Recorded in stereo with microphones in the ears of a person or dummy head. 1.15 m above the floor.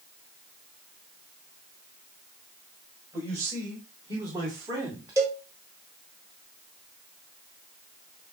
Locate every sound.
3.1 s a man speaking: 20° right (ahead or behind), 4.5 m; by 5.1 s 25° right (ahead or behind), 1.9 m
5.2 s a cowbell: 20° right (ahead or behind), 3.5 m